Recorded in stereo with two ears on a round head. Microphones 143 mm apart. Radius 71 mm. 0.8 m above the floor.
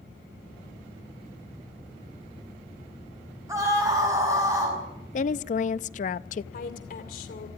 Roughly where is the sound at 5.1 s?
Left.